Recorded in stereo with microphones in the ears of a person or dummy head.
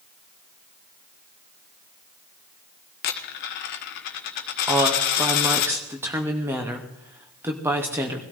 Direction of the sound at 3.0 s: 45° left (ahead or behind).